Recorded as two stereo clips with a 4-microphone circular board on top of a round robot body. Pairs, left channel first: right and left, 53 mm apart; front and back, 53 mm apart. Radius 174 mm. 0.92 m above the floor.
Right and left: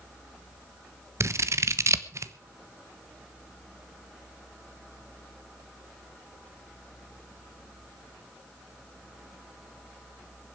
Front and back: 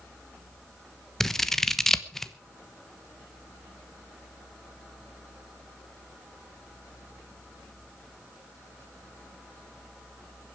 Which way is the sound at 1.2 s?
85° left.